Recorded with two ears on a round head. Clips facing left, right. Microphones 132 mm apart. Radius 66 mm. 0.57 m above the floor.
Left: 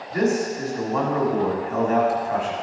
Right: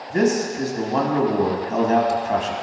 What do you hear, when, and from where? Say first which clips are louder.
0.1 s a man speaking: right 2 dB; 40° right (ahead or behind), 1.4 m